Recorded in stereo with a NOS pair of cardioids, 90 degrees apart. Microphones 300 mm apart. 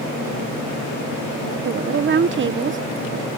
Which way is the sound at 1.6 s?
35° right.